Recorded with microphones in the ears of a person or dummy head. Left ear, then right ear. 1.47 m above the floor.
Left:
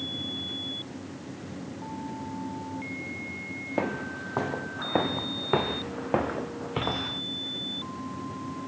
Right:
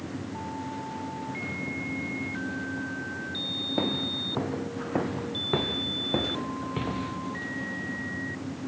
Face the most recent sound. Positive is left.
turn(degrees=45)  # may be behind; listen again after turning